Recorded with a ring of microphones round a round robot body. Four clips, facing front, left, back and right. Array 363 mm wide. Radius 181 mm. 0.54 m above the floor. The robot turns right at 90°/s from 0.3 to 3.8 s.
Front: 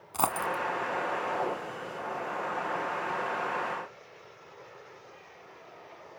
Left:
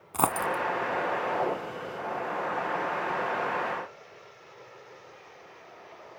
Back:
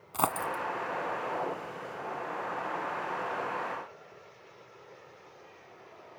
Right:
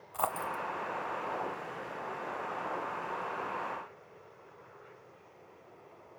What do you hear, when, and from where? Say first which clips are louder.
0.1 s a dropped coin: left 7 dB, front 1 dB; 95° left, 1.0 m; by 0.6 s 130° left, 1.0 m